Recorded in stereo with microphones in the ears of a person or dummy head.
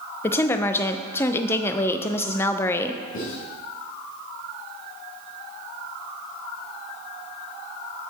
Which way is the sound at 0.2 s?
15° left (ahead or behind).